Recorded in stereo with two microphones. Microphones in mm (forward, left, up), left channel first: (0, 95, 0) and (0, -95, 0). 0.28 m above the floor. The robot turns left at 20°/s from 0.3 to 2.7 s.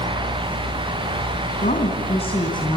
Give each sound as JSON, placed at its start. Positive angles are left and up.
{"t": 1.6, "sound": "a woman speaking", "side_deg": 40, "distance_m": 3.0}